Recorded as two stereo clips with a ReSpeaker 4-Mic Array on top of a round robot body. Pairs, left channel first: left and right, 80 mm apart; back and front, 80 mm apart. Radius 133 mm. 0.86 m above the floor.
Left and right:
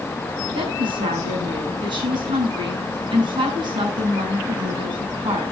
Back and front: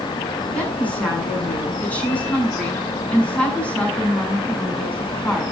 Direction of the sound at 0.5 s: 105° right.